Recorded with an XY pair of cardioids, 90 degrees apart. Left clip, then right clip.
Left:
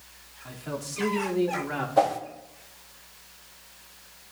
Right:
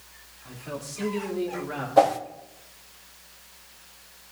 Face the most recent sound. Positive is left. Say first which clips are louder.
# right 4 dB
turn(degrees=-30)